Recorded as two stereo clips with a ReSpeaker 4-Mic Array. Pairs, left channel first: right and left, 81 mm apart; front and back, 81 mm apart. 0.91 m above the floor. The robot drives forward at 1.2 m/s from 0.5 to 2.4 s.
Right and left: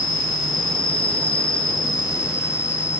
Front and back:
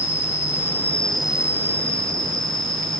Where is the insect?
55° right, 1.4 m; by 3.0 s 145° right, 1.8 m.